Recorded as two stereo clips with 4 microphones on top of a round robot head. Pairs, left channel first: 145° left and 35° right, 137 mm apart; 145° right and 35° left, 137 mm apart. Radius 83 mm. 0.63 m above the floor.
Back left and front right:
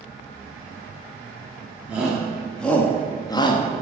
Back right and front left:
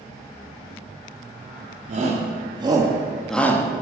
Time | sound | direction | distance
1.9 | a shout | 45° left | 1.8 m